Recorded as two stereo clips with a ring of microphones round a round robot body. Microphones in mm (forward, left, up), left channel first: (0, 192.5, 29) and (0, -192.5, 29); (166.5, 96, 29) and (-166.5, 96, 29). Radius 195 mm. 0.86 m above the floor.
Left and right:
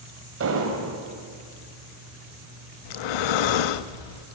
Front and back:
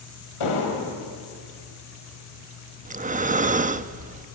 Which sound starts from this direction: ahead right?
An explosion, at 0.4 s.